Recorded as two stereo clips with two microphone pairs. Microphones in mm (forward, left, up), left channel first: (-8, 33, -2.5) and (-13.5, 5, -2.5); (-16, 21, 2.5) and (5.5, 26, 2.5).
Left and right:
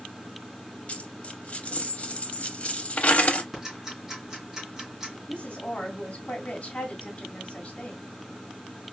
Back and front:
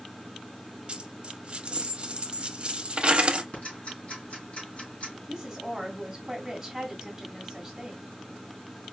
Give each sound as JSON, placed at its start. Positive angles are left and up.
{"t": 0.9, "sound": "a dropped coin", "azimuth_deg": 55, "distance_m": 0.7}
{"t": 3.5, "sound": "ticking", "azimuth_deg": -175, "distance_m": 3.0}
{"t": 5.3, "sound": "a woman speaking", "azimuth_deg": 85, "distance_m": 2.0}